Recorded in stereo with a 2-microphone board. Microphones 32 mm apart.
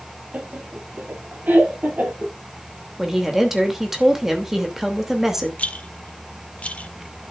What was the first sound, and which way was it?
Laughter, 50° right (ahead or behind).